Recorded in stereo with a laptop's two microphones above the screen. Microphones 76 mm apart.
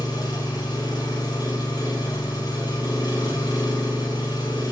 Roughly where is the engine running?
Left.